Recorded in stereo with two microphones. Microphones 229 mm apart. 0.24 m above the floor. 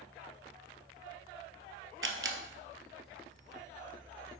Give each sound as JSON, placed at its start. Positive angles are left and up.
{"t": 2.0, "sound": "a camera shutter", "side_deg": -60, "distance_m": 0.8}